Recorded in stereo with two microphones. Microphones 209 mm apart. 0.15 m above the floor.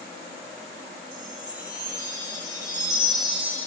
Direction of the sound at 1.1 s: 20° right (ahead or behind).